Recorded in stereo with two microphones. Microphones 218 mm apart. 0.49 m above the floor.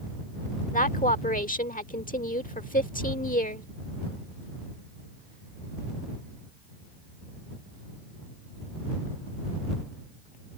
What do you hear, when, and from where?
0.7 s a woman speaking: 40° left (ahead or behind)